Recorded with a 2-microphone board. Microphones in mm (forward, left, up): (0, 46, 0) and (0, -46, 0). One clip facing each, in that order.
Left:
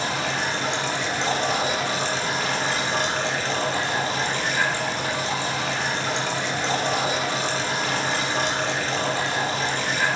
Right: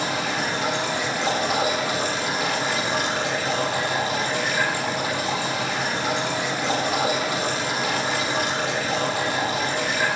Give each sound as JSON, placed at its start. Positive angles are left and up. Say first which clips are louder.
{"t": 0.0, "sound": "running water", "louder": "right 1 dB", "side_deg": -5, "distance_m": 5.0}